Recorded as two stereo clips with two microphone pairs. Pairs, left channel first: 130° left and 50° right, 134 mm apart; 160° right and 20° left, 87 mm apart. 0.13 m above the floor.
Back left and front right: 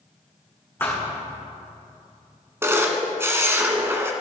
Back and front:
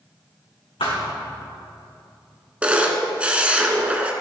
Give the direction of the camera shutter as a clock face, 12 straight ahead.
1 o'clock.